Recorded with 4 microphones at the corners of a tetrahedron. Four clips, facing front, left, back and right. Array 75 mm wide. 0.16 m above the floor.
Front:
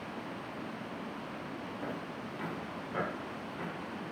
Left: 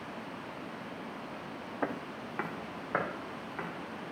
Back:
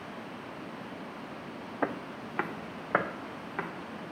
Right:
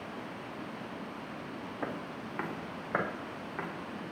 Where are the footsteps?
165° left, 0.9 m; by 3.7 s 170° right, 2.5 m.